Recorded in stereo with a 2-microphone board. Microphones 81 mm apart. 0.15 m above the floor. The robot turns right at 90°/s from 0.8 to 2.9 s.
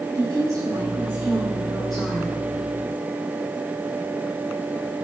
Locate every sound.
0.1 s a woman speaking: 55° right, 4 m; by 2.4 s 85° left, 4 m